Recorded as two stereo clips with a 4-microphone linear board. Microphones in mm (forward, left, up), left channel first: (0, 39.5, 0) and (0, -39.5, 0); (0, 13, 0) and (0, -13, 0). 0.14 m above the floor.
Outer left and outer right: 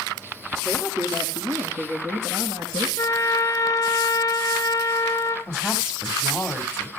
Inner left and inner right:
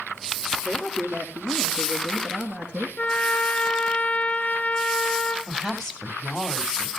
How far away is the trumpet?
About 1.5 m.